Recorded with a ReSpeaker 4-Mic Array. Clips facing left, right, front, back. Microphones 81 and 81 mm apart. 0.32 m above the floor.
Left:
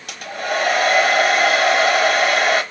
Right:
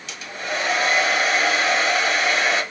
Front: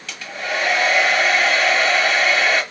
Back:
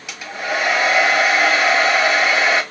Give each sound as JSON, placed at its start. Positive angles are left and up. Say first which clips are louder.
{"t": 0.1, "sound": "a hair dryer", "louder": "left 5 dB, back 2 dB", "azimuth_deg": 105, "distance_m": 1.5}